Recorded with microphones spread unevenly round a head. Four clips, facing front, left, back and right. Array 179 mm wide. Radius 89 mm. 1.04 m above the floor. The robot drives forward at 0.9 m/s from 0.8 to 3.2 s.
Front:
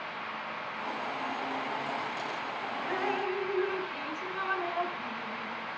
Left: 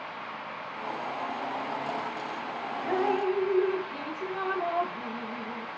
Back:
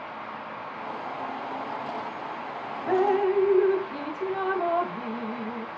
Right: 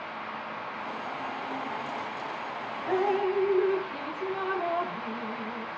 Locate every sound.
2.9 s dripping: 165° left, 0.8 m; by 5.7 s 170° left, 1.0 m